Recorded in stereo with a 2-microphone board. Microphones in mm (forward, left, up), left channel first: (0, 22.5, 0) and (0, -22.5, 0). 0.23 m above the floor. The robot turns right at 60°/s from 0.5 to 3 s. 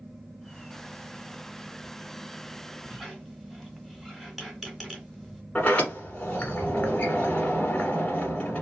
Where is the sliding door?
30° left (ahead or behind), 1.6 m.